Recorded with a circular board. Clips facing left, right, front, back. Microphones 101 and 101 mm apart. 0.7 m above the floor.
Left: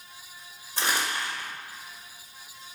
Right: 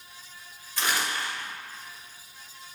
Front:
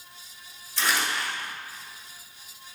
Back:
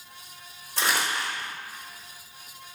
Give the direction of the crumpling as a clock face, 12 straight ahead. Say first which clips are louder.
Even, even; 7 o'clock.